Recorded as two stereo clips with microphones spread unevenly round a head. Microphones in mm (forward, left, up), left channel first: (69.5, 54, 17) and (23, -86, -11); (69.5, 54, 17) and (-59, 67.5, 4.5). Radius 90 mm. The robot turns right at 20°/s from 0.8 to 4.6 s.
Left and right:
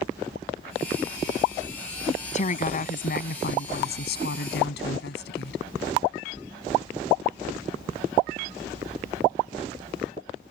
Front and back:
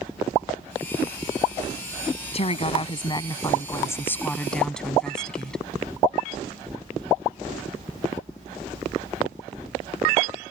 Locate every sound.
2.3 s a woman speaking: 35° left; by 5.6 s 80° left